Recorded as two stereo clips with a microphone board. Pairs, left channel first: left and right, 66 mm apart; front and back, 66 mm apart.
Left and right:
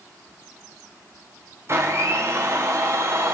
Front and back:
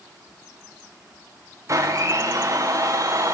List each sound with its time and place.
1.7 s a blender: 135° right, 5 m